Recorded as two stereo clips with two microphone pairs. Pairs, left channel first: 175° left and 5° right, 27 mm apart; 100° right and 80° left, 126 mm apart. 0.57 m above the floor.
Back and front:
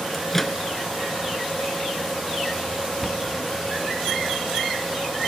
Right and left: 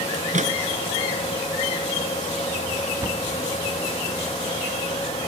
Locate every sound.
0.1 s a microwave: 95° left
3.0 s a cupboard door: 85° left